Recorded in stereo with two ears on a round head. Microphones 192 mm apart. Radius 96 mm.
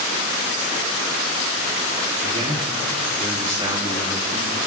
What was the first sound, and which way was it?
A man speaking, 30° right (ahead or behind).